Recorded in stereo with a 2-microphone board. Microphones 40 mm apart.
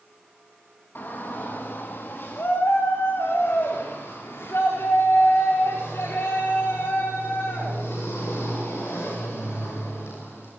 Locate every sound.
0.9 s a shout: 55° left (ahead or behind), 2 m; by 10.5 s 85° left, 7.5 m